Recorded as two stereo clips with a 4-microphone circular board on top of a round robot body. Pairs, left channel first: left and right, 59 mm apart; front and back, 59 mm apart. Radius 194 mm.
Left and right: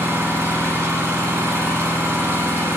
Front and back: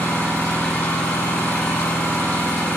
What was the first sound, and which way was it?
An engine running, 40° right.